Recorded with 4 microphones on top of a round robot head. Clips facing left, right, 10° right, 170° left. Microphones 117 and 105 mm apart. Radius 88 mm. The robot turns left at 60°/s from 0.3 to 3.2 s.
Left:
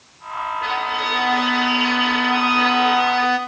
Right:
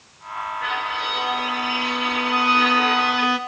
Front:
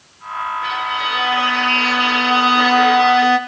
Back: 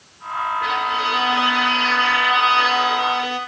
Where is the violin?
150° left, 3 m; by 3.4 s 5° right, 3 m.